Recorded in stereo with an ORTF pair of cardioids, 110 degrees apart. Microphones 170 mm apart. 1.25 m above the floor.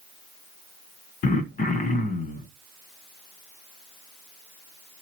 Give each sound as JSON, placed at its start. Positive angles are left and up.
{"t": 1.2, "sound": "throat clearing", "azimuth_deg": 55, "distance_m": 1.2}